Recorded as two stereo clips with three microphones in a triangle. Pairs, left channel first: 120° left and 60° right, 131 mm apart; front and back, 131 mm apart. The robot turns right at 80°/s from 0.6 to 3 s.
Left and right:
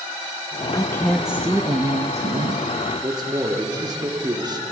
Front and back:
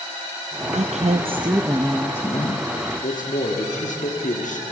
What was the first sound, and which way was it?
A woman speaking, 175° left.